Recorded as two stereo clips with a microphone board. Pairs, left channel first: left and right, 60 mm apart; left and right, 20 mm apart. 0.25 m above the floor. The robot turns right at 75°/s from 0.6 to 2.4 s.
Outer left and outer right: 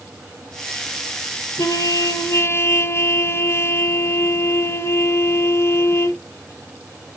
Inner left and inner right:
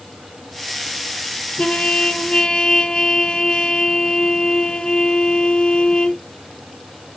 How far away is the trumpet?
About 0.9 m.